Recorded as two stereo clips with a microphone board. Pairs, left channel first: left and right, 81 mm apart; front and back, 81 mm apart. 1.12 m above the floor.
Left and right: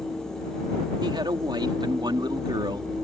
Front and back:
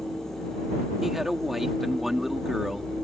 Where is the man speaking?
95° right.